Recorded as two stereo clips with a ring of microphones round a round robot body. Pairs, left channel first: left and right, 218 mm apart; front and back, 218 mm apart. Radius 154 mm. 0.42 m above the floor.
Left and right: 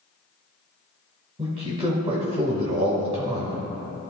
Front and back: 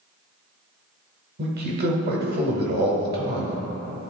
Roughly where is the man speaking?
Behind right.